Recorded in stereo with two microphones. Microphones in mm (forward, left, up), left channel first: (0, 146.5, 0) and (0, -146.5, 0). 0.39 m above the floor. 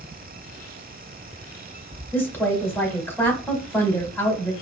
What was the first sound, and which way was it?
A woman speaking, 5° left (ahead or behind).